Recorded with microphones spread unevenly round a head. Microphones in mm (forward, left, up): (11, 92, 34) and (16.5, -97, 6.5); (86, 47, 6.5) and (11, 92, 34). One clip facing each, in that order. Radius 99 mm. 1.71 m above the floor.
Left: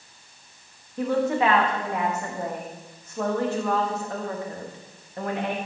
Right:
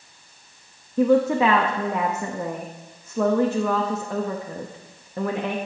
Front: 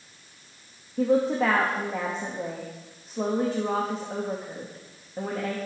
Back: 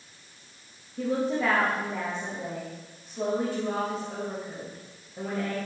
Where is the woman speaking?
110° right, 0.6 m.